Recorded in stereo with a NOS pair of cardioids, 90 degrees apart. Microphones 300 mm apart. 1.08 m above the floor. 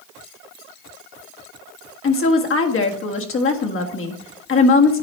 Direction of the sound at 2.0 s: 45° left.